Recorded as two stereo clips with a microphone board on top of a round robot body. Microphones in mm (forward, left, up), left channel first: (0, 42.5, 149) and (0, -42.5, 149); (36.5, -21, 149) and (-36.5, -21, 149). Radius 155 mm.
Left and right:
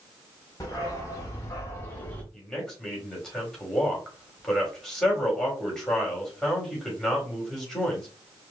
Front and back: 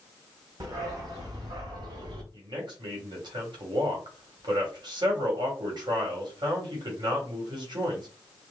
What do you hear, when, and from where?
0.6 s a dog barking: 145° left, 1.7 m; by 2.2 s 165° left, 0.6 m
2.3 s a man speaking: 175° left, 2.5 m